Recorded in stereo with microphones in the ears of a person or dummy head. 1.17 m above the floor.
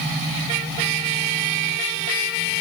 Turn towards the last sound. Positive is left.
No sound to turn to.